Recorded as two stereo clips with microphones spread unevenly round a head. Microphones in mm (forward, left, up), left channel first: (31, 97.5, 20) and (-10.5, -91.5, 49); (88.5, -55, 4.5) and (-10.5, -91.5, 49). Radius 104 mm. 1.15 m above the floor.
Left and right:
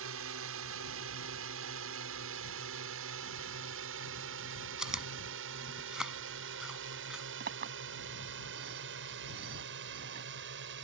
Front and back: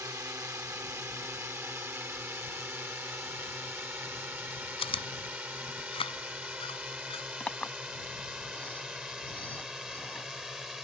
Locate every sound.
0.0 s a drone: 95° right; by 10.8 s 75° right
4.8 s chewing: 15° right
7.4 s a clink: 60° right